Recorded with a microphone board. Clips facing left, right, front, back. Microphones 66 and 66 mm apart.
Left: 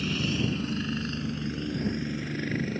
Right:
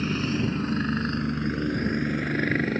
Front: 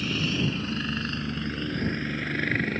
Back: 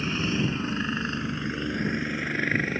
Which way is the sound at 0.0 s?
125° right.